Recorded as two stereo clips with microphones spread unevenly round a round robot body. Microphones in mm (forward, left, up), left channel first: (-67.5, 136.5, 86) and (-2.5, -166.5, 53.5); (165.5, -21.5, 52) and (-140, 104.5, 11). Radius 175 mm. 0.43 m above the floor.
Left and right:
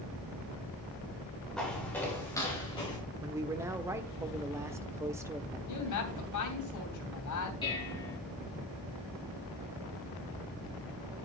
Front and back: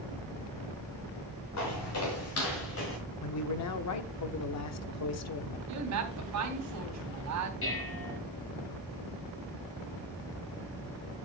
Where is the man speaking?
5° right, 0.9 m.